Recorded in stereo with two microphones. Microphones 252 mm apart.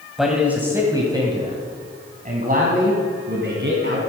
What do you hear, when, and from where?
0.2 s a man speaking: centre (ahead or behind), 1.7 m; by 4.0 s 50° right (ahead or behind), 3 m